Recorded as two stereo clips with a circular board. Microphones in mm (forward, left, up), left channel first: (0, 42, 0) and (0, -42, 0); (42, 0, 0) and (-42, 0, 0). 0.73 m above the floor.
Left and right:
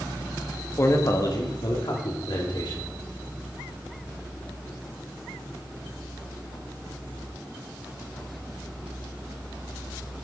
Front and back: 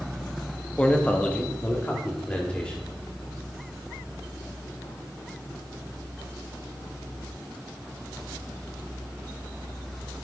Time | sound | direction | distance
0.8 | a man speaking | 65° left | 1.0 m